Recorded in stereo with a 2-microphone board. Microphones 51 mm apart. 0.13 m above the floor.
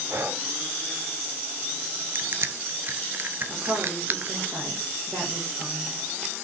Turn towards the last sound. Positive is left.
turn(degrees=-65)  # may be behind; listen again after turning